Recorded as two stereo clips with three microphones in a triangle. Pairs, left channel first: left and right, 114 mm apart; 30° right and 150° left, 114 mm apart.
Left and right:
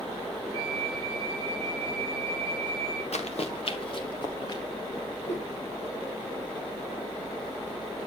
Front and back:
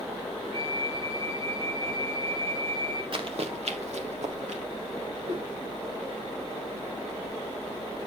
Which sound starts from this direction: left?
Running footsteps, at 3.1 s.